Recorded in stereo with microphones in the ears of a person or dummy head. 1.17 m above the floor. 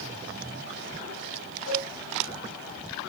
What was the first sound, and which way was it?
A cowbell, 75° left (ahead or behind).